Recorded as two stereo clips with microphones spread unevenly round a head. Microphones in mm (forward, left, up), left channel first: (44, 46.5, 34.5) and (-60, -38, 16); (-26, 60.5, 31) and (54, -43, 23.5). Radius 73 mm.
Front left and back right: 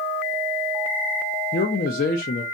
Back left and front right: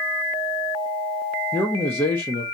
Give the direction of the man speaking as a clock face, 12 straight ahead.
10 o'clock.